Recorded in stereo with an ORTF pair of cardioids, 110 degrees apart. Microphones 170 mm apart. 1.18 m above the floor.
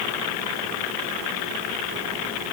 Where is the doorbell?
I don't hear a doorbell.